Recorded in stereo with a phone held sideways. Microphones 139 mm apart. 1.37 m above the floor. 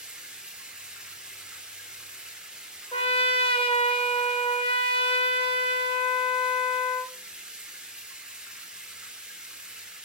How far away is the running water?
About 1.5 m.